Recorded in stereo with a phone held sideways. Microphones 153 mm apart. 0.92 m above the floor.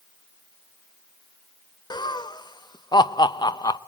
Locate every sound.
1.9 s laughter: 30° left (ahead or behind), 0.7 m